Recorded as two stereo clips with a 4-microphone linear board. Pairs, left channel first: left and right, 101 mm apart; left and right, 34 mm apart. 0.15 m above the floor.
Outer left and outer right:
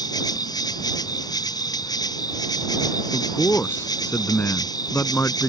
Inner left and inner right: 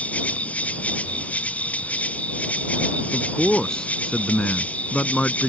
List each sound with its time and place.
0.0 s an insect: 40° left (ahead or behind)
3.1 s a man speaking: 20° left (ahead or behind)